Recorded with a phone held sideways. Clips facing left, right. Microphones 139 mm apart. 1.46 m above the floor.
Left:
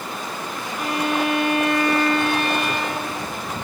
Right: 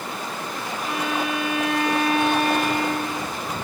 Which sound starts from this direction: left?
A violin, at 0.8 s.